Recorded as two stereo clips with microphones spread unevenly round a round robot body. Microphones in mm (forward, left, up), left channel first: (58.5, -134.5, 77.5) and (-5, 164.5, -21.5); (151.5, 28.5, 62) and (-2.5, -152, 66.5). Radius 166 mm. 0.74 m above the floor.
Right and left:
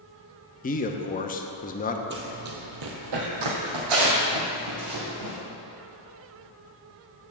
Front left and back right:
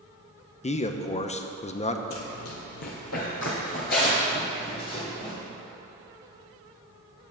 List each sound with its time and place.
0.6 s a man speaking: 5° right, 0.7 m
2.1 s running footsteps: 40° left, 1.2 m; by 5.3 s 125° left, 3 m